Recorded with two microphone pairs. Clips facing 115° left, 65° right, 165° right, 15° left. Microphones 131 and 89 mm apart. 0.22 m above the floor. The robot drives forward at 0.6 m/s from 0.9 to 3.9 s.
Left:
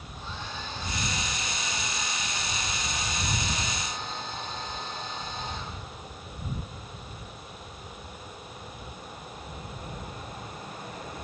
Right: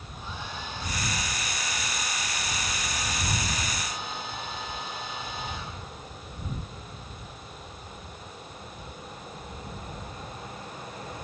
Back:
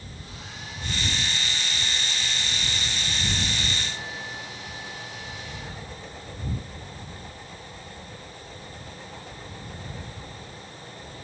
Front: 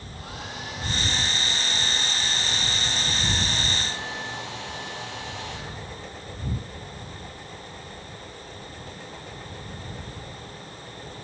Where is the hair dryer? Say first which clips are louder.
Right 1 dB, front 8 dB; 10° left, 9 m; by 6.2 s 15° left, 7.5 m.